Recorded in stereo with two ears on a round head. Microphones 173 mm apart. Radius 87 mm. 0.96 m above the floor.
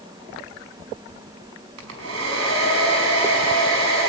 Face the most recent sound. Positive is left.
turn(degrees=-80)